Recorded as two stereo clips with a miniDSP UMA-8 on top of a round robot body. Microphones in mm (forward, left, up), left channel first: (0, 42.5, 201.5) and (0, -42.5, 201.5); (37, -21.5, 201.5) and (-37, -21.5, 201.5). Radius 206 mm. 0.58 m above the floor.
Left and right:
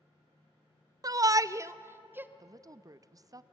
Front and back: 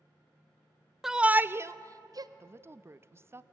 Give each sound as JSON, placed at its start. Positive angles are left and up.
{"t": 1.0, "sound": "a shout", "azimuth_deg": -95, "distance_m": 0.8}
{"t": 2.4, "sound": "a woman speaking", "azimuth_deg": -130, "distance_m": 0.8}